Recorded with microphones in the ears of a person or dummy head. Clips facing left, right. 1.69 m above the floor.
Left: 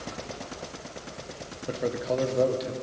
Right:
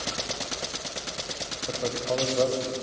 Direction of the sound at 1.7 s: 10° left (ahead or behind).